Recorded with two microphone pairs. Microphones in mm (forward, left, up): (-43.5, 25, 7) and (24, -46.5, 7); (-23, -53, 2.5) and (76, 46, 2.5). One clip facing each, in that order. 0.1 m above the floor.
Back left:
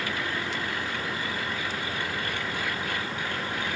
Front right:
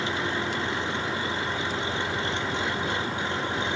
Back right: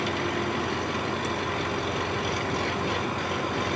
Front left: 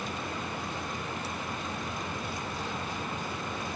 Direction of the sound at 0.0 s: 115° right.